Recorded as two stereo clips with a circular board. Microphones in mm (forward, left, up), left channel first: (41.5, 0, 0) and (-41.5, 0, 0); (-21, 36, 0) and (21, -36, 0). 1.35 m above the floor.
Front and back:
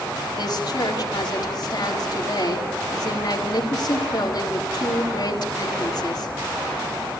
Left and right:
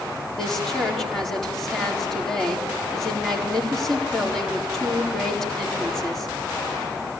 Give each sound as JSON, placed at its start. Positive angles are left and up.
{"t": 0.4, "sound": "a woman speaking", "azimuth_deg": 35, "distance_m": 4.0}